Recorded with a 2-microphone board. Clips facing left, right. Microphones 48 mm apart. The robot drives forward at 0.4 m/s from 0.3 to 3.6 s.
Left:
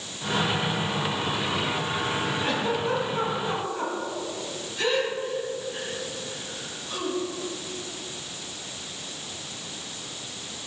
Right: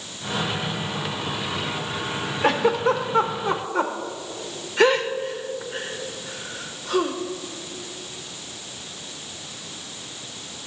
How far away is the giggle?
About 0.9 m.